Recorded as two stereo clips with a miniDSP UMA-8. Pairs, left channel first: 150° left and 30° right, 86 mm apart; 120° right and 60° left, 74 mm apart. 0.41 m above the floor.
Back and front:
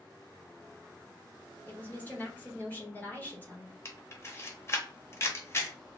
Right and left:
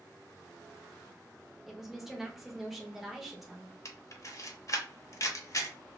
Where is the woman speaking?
140° left, 1.0 m.